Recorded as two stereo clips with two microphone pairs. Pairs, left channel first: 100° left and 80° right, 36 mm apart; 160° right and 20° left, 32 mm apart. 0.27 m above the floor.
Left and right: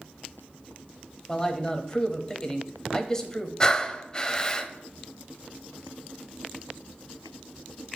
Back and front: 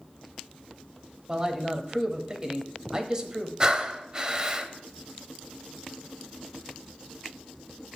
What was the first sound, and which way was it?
A man speaking, 55° left.